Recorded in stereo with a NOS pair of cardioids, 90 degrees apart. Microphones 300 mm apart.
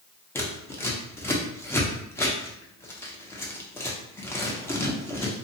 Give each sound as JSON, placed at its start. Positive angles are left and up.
{"t": 0.3, "sound": "scissors", "azimuth_deg": 10, "distance_m": 0.7}